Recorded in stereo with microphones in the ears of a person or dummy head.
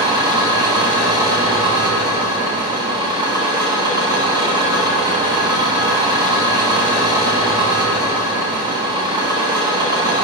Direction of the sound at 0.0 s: 20° right (ahead or behind).